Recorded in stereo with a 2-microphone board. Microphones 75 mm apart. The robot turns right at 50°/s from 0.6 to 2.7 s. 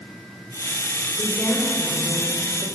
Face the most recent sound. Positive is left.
turn(degrees=100)